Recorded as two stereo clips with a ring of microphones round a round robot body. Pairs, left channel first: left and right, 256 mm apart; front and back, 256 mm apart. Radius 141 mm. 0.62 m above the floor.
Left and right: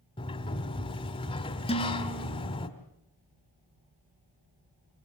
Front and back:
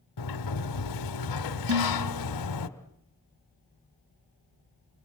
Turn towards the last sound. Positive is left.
turn(degrees=160)